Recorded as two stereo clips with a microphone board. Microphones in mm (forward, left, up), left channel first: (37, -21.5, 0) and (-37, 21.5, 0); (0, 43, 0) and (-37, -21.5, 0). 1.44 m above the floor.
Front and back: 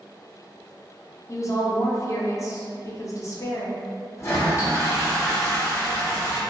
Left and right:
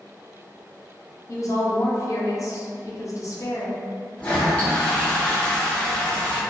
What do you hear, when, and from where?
1.3 s a woman speaking: 20° left, 0.6 m
4.2 s a toilet flushing: straight ahead, 0.7 m